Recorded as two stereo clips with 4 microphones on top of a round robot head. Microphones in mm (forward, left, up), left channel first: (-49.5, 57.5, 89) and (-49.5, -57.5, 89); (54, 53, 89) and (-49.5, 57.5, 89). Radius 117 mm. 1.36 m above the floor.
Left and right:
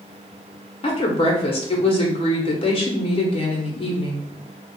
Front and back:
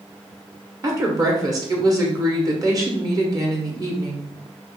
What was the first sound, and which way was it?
A woman speaking, 125° left.